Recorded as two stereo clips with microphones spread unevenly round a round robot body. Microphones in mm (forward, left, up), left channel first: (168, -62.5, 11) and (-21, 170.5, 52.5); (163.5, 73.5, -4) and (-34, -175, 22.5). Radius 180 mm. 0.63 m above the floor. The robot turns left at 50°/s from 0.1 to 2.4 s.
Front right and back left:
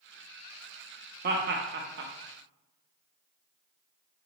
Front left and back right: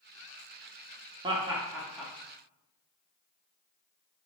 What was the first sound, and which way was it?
Laughter, 165° left.